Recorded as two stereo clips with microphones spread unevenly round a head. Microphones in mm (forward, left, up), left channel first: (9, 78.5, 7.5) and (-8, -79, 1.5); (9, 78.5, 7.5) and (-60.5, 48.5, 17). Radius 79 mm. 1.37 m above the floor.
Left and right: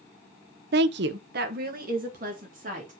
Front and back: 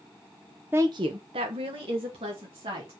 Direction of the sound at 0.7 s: 80° right.